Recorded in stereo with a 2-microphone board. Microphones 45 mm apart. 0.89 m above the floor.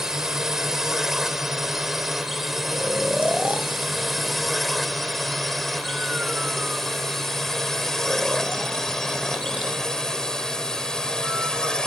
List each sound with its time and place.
0.0 s a drone: 10° right (ahead or behind); by 11.9 s 15° left (ahead or behind)
2.7 s snoring: 25° right (ahead or behind)